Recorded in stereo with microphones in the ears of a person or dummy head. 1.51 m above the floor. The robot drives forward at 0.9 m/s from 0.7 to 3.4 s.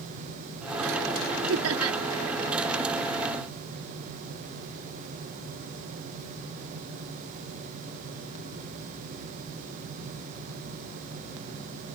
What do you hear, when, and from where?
1.5 s laughter: 85° right; by 2.0 s 90° right